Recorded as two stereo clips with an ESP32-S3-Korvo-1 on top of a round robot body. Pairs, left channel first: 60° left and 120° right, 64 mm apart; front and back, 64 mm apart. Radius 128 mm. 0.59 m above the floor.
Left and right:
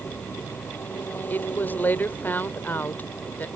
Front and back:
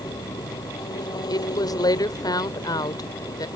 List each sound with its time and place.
0.0 s an engine running: straight ahead
1.3 s a woman speaking: straight ahead